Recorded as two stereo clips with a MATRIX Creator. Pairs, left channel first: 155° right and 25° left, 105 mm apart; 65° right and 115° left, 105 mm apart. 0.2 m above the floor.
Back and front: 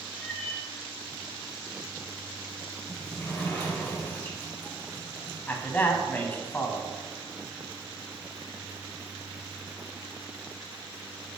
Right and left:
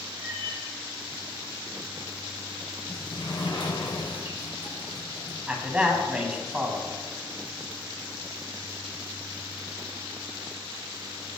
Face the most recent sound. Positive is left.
turn(degrees=175)